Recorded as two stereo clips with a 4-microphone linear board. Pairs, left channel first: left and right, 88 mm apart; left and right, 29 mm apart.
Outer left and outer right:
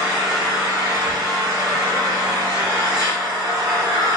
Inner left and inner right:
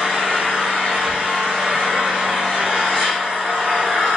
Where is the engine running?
45° right (ahead or behind), 1.7 m.